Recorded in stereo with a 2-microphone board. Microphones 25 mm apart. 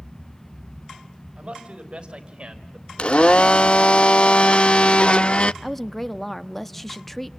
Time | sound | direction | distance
1.4 | a man speaking | 45° right (ahead or behind) | 4.5 m
3.0 | a blender | 45° left (ahead or behind) | 0.6 m
5.6 | a woman speaking | 10° left (ahead or behind) | 1.0 m